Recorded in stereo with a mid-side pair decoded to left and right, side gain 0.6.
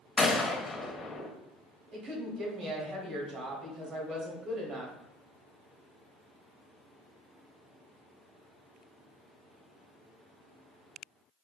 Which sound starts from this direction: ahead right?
A woman speaking, at 1.9 s.